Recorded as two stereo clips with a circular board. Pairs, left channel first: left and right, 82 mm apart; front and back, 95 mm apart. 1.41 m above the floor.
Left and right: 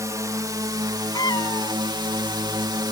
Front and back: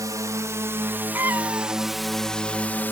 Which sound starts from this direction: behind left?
A cat meowing, at 1.1 s.